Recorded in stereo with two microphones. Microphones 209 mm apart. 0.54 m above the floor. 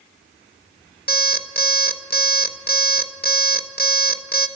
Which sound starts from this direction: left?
An alarm clock, at 1.1 s.